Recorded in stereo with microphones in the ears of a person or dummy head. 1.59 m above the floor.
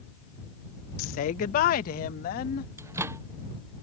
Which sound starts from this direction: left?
A woman speaking, at 1.0 s.